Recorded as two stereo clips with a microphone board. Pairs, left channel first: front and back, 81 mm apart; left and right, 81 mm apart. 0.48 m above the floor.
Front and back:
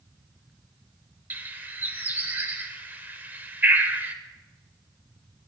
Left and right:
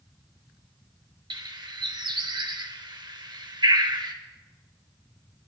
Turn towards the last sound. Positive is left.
turn(degrees=-115)